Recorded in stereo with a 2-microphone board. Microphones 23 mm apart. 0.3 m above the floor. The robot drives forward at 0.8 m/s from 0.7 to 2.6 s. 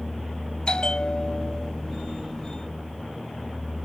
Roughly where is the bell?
Left.